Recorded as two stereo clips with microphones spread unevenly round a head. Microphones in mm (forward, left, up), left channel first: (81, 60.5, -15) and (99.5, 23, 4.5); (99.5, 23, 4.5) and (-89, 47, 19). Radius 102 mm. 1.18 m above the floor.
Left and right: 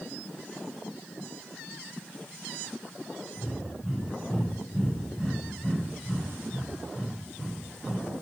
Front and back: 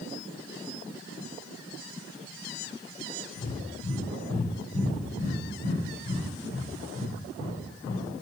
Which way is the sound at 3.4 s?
20° left.